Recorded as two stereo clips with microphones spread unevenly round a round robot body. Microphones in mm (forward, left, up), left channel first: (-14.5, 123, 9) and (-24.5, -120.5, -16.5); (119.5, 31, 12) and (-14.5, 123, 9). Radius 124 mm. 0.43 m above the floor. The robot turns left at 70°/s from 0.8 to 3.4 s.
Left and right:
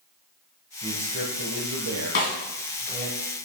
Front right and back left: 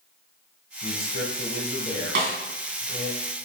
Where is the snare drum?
140° left, 2.5 m; by 2.4 s 125° left, 2.5 m.